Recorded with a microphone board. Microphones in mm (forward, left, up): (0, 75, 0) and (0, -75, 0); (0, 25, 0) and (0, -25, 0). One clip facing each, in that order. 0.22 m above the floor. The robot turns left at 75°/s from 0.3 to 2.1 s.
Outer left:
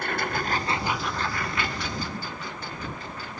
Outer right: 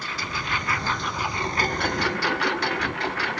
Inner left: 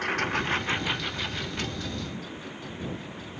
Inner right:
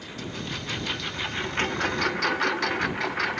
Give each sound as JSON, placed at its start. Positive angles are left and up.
{"t": 0.0, "sound": "a lawn mower", "azimuth_deg": 60}